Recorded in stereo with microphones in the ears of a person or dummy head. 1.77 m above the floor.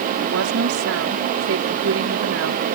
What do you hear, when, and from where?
0.2 s a woman speaking: 75° right (ahead or behind)